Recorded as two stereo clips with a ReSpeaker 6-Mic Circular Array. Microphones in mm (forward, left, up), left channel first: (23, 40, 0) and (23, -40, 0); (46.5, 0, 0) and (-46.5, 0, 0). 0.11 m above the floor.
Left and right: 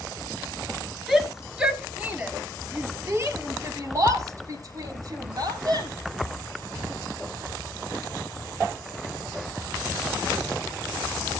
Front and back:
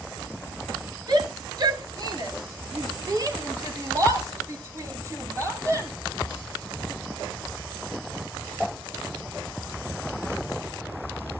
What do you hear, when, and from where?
1.1 s a shout: straight behind, 2.5 m; by 5.9 s 120° right, 5 m